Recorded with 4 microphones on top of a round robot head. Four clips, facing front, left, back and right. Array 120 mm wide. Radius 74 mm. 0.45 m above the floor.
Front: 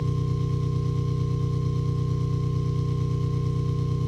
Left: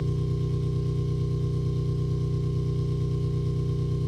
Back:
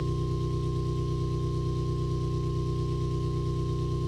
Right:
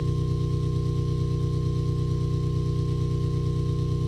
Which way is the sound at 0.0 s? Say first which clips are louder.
Right 1 dB, front 2 dB; 10° right.